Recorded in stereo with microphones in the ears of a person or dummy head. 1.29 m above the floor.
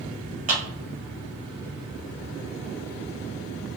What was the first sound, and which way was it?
A clap, 35° right (ahead or behind).